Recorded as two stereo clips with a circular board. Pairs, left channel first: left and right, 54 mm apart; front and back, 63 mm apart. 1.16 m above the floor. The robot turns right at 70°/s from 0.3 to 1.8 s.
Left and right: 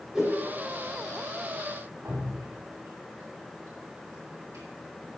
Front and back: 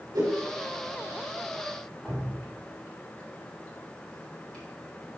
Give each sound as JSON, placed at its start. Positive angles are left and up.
{"t": 0.1, "sound": "a whoosh", "azimuth_deg": -170, "distance_m": 3.0}
{"t": 2.0, "sound": "dripping", "azimuth_deg": -80, "distance_m": 3.5}